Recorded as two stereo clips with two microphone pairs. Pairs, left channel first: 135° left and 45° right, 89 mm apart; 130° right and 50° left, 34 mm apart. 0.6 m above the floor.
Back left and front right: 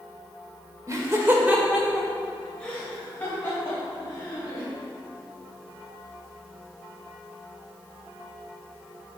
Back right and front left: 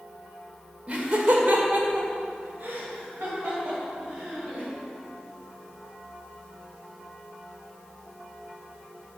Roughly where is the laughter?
Ahead.